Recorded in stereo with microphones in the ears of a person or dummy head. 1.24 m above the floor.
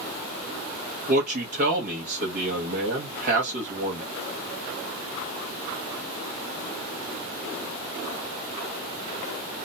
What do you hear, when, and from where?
1.1 s a man speaking: 40° right (ahead or behind), 0.8 m